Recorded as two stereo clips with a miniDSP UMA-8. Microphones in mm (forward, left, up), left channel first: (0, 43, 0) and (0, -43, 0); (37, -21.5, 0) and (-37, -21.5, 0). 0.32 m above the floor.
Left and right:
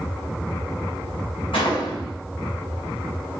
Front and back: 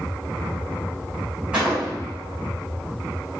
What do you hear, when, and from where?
1.5 s a gunshot: 105° left, 4.5 m